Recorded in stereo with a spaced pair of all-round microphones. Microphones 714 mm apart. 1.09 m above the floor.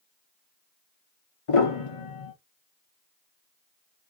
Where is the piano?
45° left (ahead or behind), 1.0 m.